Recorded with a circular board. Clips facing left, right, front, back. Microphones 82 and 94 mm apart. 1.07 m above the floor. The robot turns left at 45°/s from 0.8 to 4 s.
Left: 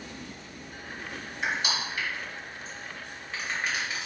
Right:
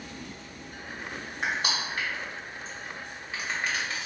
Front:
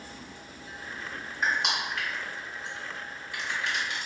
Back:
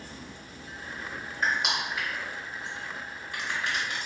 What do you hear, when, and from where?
1.4 s crushing: 80° right, 1.1 m; by 4.1 s 165° left, 1.1 m